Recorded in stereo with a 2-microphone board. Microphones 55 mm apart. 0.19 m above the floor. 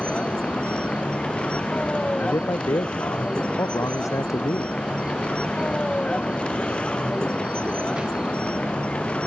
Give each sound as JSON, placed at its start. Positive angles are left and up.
{"t": 0.0, "sound": "a vehicle", "side_deg": 20}
{"t": 2.2, "sound": "a man speaking", "side_deg": 70}